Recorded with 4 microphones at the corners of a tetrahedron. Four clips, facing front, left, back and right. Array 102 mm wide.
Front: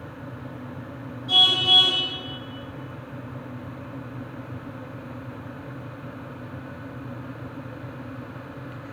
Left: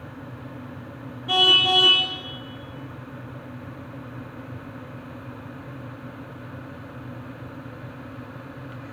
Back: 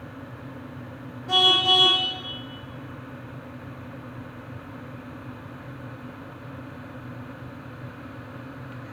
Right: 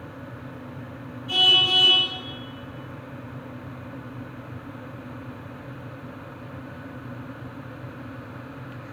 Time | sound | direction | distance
1.3 | a car horn | 125° left | 7 m